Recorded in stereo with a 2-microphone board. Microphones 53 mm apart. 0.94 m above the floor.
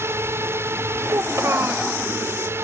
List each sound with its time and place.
0.0 s a drone: 55° right (ahead or behind)
1.1 s a child speaking: 65° right (ahead or behind)